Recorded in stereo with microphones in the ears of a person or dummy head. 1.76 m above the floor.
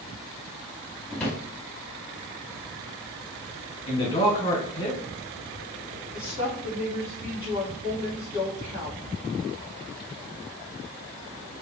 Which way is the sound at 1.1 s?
10° left (ahead or behind).